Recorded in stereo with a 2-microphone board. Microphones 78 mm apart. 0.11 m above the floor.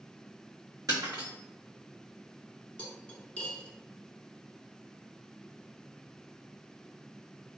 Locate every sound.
0.9 s breaking glass: 50° right (ahead or behind), 1.8 m
2.8 s cutlery clinking: 20° left (ahead or behind), 0.7 m